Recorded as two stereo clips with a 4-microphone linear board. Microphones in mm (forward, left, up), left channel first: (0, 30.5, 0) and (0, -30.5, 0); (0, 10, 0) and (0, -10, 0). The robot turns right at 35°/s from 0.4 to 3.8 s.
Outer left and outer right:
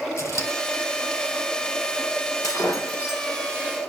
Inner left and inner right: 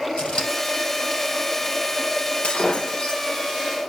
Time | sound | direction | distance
0.2 | scissors | 50° left (ahead or behind) | 5 m
2.4 | breaking glass | 70° left (ahead or behind) | 3 m